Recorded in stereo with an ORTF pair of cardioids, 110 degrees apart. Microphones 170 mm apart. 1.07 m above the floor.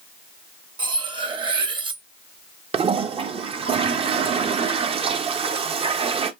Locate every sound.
0.8 s cutlery clinking: 30° right, 0.8 m
2.7 s a toilet flushing: 35° right, 0.6 m